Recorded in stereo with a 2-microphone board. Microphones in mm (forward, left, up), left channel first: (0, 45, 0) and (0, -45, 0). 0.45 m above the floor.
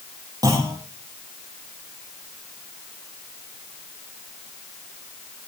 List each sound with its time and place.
0.4 s a clunk: 45° right (ahead or behind), 8 m